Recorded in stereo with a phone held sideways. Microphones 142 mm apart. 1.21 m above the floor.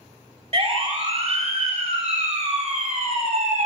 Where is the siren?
50° right (ahead or behind), 4.5 m; by 3.7 s 65° right (ahead or behind), 5.5 m.